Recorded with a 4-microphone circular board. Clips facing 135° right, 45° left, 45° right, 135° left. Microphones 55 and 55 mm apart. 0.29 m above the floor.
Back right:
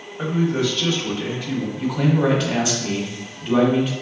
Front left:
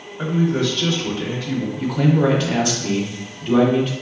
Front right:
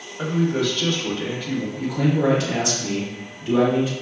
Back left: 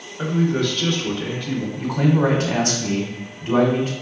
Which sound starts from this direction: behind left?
A man speaking, at 1.8 s.